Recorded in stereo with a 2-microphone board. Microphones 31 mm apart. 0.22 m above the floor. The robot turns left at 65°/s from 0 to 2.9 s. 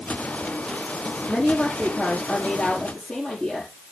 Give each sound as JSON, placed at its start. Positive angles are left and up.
{"t": 1.3, "sound": "a woman speaking", "azimuth_deg": 145, "distance_m": 5.5}